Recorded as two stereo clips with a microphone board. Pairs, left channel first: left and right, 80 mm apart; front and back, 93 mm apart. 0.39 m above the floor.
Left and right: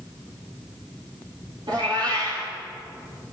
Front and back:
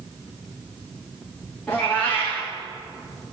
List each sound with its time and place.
1.7 s a cat meowing: 80° right, 3.5 m